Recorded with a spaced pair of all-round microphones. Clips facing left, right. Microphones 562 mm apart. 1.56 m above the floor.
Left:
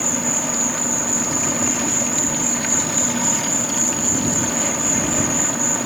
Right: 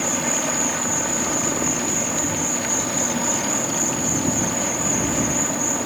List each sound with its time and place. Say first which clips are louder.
0.0 s an insect: even; 35° left (ahead or behind)